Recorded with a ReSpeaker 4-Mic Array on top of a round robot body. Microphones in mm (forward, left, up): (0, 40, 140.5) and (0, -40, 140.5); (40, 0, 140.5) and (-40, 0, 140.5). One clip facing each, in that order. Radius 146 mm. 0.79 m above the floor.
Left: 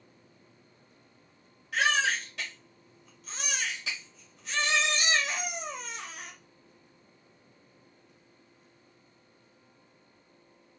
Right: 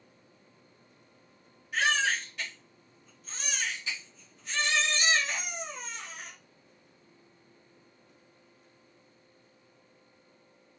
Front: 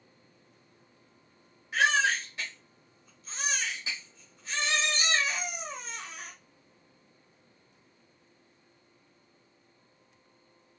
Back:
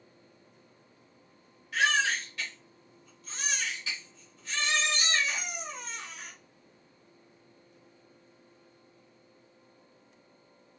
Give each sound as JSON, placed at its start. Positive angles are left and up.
{"t": 1.7, "sound": "a baby crying", "azimuth_deg": 65, "distance_m": 0.6}